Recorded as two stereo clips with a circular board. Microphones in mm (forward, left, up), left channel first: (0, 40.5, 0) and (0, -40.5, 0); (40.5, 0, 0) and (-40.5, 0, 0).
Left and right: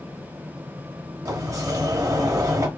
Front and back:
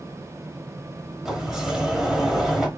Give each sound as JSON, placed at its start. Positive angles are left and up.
{"t": 1.2, "sound": "a sliding door", "azimuth_deg": -100, "distance_m": 1.2}